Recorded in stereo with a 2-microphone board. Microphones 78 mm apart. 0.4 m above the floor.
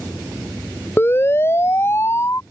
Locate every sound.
1.0 s a siren: 30° left (ahead or behind); by 2.4 s 35° left (ahead or behind)